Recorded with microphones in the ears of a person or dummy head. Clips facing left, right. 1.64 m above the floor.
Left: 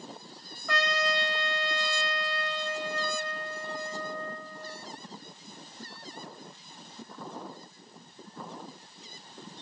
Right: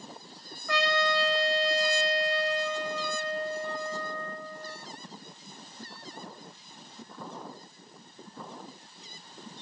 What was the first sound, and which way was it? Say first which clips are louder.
A trumpet: right 2 dB; 55° left (ahead or behind).